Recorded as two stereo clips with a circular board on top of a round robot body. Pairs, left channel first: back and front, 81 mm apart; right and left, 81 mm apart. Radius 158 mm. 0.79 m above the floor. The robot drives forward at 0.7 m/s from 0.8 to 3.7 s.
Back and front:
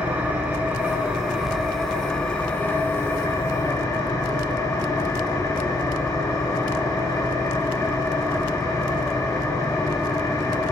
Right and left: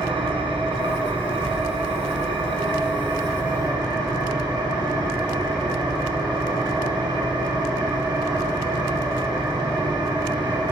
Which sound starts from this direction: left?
An engine running, at 0.0 s.